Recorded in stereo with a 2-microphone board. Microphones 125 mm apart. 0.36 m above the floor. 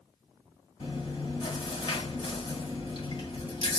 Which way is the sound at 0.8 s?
40° left (ahead or behind).